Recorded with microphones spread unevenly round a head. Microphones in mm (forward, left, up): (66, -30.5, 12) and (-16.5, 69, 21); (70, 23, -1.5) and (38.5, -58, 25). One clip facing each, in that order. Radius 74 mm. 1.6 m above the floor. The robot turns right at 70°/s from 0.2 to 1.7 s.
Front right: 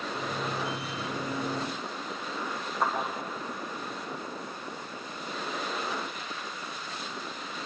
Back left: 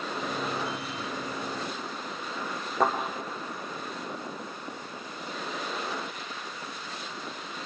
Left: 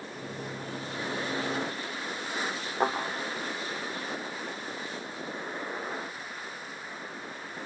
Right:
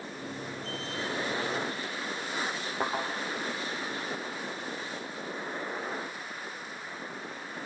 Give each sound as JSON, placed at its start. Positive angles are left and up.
{"t": 2.8, "sound": "a thud", "azimuth_deg": 165, "distance_m": 3.0}